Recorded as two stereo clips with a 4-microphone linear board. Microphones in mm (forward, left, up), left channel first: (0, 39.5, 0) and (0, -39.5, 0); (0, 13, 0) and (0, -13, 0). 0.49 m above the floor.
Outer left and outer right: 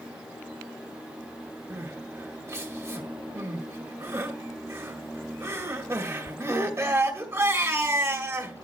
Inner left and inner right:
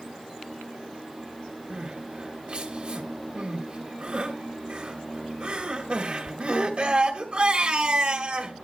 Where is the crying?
35° right (ahead or behind), 1.8 m.